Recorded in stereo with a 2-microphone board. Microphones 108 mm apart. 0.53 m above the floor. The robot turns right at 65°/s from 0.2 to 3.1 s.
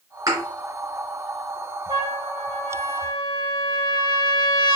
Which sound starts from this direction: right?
A thud, at 0.3 s.